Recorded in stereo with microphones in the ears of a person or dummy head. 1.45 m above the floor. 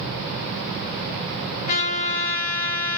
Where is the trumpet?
35° left (ahead or behind), 0.8 m.